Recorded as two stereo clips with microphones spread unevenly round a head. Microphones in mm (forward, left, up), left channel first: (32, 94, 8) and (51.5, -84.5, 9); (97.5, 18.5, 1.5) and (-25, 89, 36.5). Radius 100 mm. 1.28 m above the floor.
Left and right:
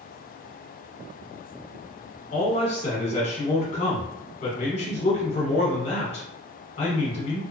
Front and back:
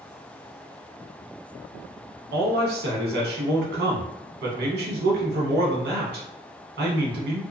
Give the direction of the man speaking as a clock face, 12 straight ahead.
7 o'clock.